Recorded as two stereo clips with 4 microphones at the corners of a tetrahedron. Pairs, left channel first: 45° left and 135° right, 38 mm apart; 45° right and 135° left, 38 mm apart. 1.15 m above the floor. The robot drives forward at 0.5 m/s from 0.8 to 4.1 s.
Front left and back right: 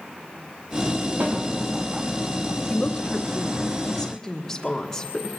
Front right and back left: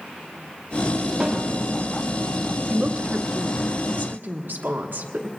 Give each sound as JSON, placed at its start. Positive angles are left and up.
{"t": 1.2, "sound": "a snare drum", "azimuth_deg": -155, "distance_m": 3.5}
{"t": 2.7, "sound": "a woman speaking", "azimuth_deg": 90, "distance_m": 1.1}